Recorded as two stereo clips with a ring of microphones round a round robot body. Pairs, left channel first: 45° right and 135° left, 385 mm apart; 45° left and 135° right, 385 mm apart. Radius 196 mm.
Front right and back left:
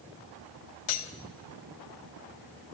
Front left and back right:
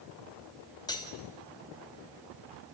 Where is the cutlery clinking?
35° right, 1.9 m.